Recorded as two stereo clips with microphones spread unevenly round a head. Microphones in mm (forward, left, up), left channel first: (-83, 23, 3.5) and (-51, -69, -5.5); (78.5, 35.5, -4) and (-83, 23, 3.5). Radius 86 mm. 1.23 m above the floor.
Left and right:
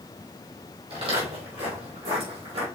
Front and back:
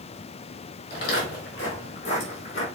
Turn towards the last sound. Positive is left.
turn(degrees=-50)